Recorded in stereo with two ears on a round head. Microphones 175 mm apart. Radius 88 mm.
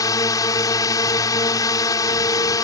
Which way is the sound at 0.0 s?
20° left (ahead or behind).